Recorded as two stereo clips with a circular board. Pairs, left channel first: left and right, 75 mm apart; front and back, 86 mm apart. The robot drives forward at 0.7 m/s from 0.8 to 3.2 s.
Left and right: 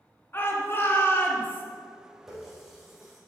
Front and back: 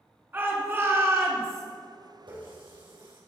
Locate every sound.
0.3 s a shout: 130° left, 2 m; by 1.6 s 140° left, 2.5 m
2.3 s a running tap: 175° right, 3.5 m